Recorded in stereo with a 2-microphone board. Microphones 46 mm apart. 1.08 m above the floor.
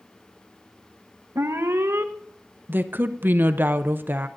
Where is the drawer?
I don't hear a drawer.